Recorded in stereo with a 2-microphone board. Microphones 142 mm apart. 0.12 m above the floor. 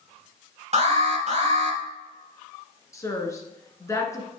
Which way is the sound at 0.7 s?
45° right (ahead or behind).